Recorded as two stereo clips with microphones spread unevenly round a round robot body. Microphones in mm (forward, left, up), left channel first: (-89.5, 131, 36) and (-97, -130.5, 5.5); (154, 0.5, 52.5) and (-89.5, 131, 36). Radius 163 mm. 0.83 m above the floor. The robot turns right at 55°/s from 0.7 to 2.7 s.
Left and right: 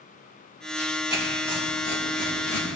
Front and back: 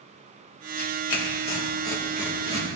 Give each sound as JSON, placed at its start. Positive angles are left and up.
{"t": 0.8, "sound": "tearing paper", "azimuth_deg": -10, "distance_m": 2.5}